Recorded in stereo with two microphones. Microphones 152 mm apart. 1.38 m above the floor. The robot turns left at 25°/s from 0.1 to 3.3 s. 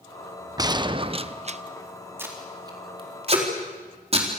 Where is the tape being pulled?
15° right (ahead or behind), 4 m; by 4.3 s 40° right (ahead or behind), 4 m.